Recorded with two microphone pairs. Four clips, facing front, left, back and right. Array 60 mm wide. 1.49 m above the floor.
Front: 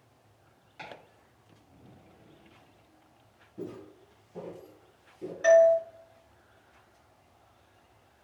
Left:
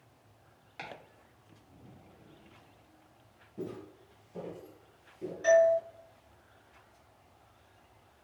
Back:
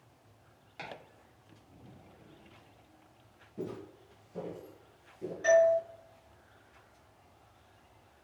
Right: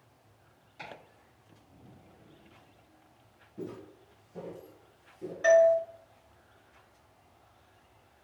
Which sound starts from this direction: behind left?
Footsteps, at 3.6 s.